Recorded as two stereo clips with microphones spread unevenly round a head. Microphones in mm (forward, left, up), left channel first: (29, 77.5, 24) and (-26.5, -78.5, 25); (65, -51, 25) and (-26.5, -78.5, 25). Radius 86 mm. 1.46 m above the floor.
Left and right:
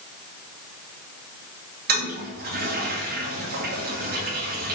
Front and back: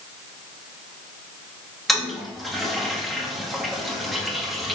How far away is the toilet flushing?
About 2.5 m.